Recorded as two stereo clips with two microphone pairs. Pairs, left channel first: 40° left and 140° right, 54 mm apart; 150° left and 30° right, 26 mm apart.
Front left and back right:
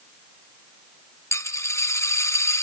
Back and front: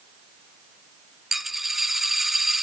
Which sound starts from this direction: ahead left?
A dropped coin, at 1.3 s.